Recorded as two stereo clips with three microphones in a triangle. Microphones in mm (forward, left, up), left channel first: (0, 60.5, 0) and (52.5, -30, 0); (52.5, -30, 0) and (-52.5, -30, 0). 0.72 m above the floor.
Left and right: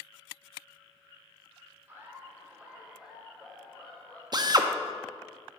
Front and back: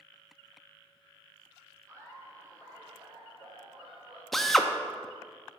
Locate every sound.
1.9 s laughter: 125° right, 2.5 m; by 4.2 s 165° right, 1.8 m
4.3 s a drill: 85° right, 0.5 m